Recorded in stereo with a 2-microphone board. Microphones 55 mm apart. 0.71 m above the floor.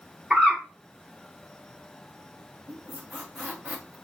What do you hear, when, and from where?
0.3 s a bird: 15° right (ahead or behind), 2 m
2.7 s a squeak: 30° right (ahead or behind), 1.9 m